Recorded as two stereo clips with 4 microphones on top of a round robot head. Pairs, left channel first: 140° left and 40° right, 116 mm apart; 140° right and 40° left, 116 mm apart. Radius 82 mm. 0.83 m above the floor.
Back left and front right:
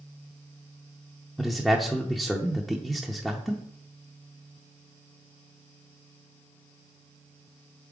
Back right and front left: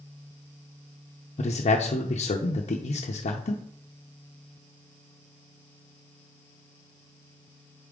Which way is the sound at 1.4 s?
130° right.